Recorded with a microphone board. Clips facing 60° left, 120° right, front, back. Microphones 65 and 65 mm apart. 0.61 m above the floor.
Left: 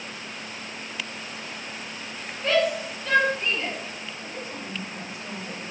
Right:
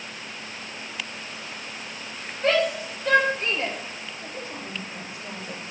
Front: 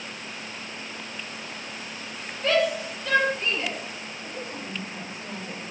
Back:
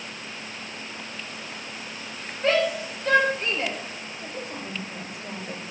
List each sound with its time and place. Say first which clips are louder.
2.4 s a shout: even, even; 130° right, 3 m; by 3.8 s 145° right, 2.5 m
4.2 s a woman speaking: even, back 1 dB; straight behind, 2.5 m